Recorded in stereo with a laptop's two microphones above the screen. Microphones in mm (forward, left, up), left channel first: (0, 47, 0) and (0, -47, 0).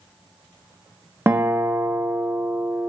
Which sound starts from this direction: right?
A guitar, at 1.3 s.